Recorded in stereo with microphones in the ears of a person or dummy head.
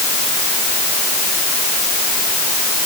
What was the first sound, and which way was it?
Only background noise.